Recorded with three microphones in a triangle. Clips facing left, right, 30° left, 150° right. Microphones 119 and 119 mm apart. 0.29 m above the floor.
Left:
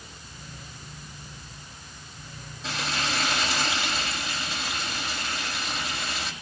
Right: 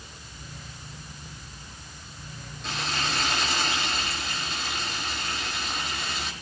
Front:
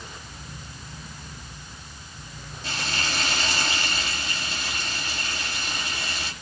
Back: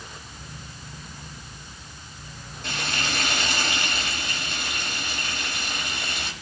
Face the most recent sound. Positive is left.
turn(degrees=175)